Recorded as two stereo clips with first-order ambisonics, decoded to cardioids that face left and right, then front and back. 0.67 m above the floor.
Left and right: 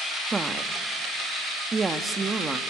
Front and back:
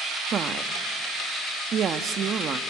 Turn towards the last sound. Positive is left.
turn(degrees=-155)